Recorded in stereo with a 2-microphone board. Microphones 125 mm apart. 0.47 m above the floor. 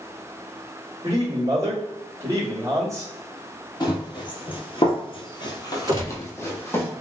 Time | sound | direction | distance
1.0 | a man speaking | 25° right (ahead or behind) | 1.3 m
3.8 | running footsteps | 35° left (ahead or behind) | 0.9 m
5.9 | a gunshot | 30° right (ahead or behind) | 0.9 m